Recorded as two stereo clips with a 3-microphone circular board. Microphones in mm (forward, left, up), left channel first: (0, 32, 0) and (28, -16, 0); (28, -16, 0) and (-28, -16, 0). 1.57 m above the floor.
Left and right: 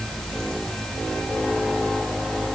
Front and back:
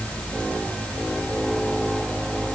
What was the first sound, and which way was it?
Only background noise.